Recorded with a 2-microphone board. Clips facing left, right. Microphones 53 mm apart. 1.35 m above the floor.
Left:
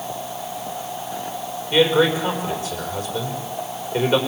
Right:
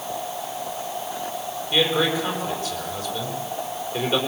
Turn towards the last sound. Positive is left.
turn(degrees=10)  # may be behind; listen again after turning